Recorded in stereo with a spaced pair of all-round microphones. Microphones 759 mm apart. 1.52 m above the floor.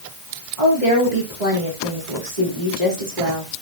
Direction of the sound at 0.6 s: 65° right (ahead or behind).